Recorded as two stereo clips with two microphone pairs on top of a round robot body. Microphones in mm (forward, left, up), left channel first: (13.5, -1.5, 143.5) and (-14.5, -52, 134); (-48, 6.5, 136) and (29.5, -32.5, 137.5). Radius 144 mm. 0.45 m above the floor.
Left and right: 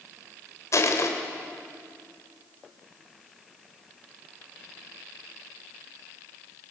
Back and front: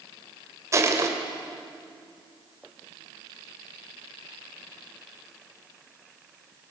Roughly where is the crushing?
Ahead left.